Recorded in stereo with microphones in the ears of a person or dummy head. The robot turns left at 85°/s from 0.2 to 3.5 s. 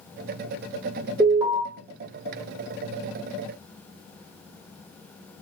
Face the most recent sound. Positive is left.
turn(degrees=155)